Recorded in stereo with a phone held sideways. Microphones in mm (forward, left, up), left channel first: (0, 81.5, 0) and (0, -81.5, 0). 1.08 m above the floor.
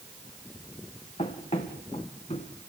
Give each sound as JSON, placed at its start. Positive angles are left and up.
{"t": 1.2, "sound": "running footsteps", "side_deg": 40, "distance_m": 4.5}